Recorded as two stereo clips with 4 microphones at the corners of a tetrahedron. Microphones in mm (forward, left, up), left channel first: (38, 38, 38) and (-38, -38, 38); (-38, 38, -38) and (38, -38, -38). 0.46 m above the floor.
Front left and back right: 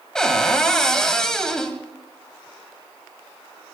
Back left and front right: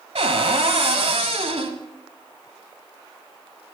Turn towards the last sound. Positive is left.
turn(degrees=-40)